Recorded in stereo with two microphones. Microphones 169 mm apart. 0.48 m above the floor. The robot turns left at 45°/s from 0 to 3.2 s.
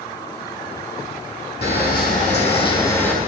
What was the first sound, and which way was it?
A camera shutter, 75° left.